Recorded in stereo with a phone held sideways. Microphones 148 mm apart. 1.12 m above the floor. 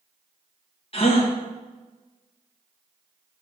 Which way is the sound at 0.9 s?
45° left (ahead or behind).